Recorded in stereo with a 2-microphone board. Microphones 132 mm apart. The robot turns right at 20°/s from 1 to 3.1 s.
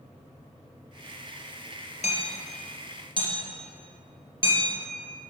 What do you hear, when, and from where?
2.0 s hammering: 55° left (ahead or behind), 3 m; by 4.7 s 35° left (ahead or behind), 3 m